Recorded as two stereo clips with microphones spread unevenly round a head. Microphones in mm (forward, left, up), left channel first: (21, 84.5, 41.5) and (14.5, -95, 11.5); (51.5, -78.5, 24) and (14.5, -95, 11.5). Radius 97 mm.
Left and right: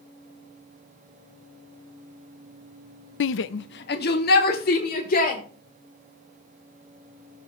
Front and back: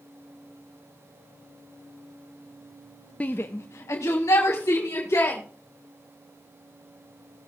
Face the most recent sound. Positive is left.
turn(degrees=45)